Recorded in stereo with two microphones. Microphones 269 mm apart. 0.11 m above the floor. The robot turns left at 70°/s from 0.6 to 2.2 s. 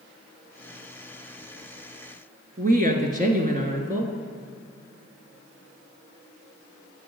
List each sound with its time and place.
2.6 s a woman speaking: 30° right (ahead or behind), 1.2 m